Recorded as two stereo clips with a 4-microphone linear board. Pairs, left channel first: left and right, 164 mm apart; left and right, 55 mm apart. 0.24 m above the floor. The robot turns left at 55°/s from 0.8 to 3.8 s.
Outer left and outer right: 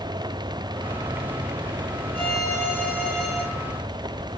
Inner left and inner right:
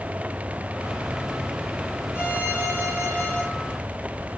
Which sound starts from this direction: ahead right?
A violin, at 2.1 s.